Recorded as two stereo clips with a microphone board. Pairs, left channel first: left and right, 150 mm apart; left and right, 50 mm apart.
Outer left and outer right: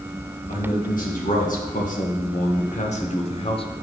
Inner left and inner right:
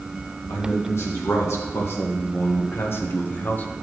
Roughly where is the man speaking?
Left.